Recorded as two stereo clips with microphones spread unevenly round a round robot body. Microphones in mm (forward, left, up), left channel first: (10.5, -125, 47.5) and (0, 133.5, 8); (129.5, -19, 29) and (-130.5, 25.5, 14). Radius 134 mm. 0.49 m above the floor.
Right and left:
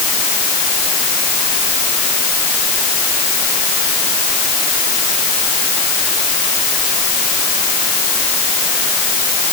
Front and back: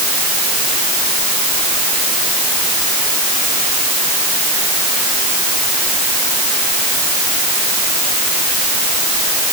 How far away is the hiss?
No hiss in this recording.